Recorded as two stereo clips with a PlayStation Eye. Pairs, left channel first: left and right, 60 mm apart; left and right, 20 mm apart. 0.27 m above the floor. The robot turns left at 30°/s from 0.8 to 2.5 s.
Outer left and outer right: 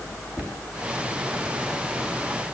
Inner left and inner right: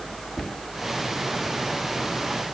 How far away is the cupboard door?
About 2 m.